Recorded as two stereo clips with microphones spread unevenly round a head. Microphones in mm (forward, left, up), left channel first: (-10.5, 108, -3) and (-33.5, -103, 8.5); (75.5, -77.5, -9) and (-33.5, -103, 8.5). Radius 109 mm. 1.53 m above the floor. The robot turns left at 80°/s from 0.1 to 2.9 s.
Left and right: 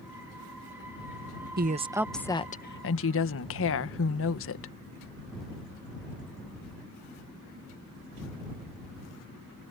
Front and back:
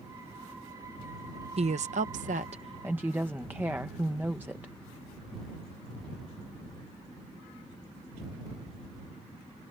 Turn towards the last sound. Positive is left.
turn(degrees=110)